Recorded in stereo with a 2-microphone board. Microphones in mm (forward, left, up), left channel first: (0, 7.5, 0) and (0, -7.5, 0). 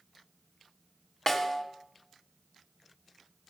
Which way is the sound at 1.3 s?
30° left (ahead or behind).